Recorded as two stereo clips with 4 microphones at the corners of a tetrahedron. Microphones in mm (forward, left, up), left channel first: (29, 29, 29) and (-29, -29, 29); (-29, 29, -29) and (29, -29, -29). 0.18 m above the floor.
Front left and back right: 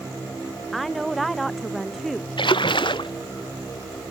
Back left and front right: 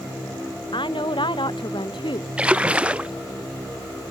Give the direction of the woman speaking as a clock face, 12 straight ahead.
8 o'clock.